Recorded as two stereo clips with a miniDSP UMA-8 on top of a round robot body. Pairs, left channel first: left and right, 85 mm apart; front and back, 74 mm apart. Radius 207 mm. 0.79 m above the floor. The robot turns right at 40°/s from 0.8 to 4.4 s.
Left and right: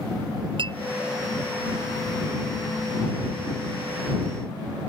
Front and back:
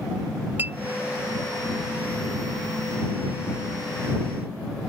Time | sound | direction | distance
0.6 | a clink | 115° right | ?